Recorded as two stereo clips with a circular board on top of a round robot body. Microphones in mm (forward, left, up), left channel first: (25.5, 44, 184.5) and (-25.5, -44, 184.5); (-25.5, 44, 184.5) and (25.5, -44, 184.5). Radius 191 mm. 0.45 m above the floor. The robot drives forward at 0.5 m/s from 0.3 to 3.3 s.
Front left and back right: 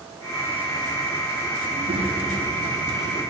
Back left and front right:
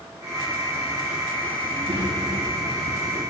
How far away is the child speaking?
About 5.5 m.